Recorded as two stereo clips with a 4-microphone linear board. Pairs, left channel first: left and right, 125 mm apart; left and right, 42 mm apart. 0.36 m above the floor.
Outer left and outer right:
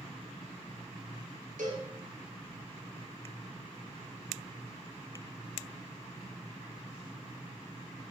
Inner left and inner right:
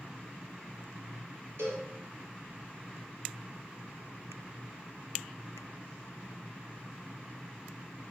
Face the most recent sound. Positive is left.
turn(degrees=-80)